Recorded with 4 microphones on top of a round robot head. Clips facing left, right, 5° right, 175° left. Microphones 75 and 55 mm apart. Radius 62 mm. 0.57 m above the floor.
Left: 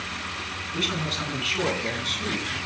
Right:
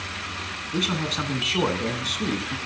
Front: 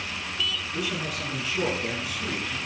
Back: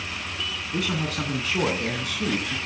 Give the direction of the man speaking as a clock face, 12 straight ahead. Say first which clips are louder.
Right 3 dB, back 3 dB; 5 o'clock.